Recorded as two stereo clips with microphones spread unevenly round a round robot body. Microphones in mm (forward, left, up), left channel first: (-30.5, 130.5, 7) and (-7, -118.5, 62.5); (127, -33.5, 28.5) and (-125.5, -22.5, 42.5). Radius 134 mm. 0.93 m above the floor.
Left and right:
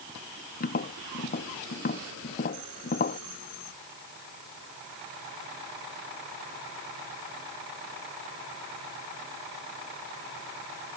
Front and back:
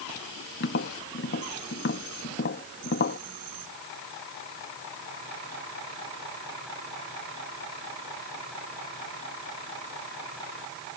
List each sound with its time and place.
0.6 s tapping: 45° left